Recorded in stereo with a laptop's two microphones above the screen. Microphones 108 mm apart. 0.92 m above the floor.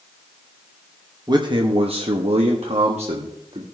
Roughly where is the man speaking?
Right.